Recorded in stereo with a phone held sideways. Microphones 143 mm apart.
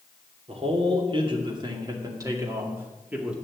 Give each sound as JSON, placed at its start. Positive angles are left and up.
{"t": 0.5, "sound": "a man speaking", "side_deg": -45, "distance_m": 2.5}